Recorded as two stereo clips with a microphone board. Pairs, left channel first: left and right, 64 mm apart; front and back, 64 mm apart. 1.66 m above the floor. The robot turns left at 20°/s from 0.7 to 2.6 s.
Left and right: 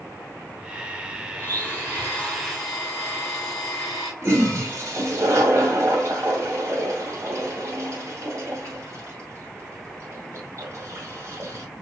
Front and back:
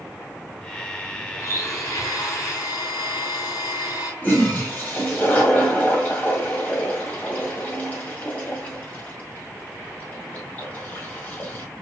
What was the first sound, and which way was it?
A blender, 30° left.